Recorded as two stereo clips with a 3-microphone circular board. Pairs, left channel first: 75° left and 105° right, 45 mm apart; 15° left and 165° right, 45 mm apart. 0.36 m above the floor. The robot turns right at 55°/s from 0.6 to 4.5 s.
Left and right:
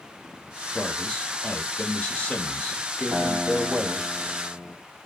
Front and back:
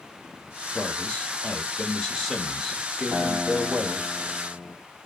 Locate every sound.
0.7 s a man speaking: 10° left, 1.0 m; by 4.1 s 165° right, 1.0 m
3.1 s a guitar: 145° right, 2.5 m; by 4.8 s 70° right, 2.5 m